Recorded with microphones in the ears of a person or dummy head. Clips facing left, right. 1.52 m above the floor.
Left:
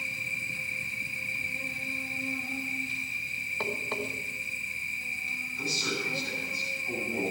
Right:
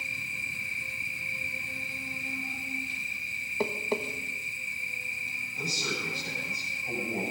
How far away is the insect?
About 3.5 m.